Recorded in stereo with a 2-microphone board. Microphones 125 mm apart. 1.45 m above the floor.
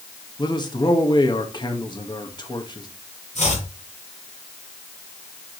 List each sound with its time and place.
0.4 s a man speaking: 35° left (ahead or behind), 1.8 m
3.4 s chopping: 70° left (ahead or behind), 5.5 m